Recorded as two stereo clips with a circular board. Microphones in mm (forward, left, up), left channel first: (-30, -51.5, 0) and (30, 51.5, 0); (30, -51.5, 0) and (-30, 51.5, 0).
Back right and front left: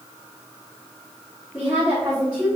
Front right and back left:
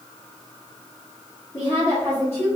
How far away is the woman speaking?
About 1.2 m.